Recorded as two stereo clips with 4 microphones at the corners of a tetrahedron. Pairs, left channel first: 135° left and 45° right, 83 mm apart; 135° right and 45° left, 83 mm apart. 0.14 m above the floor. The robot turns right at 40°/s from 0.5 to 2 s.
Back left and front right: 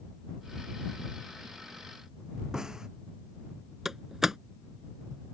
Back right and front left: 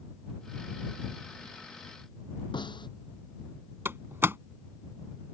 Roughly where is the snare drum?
Behind right.